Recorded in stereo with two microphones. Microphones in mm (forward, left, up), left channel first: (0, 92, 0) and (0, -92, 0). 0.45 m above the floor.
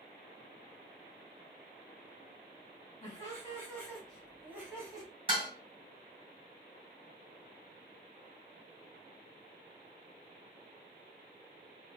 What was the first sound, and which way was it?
Laughter, 25° left (ahead or behind).